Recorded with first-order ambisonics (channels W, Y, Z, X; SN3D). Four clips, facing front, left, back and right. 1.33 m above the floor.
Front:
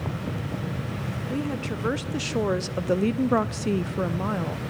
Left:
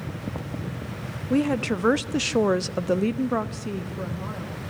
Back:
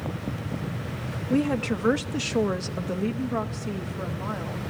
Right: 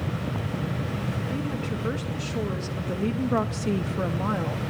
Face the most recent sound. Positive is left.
turn(degrees=-45)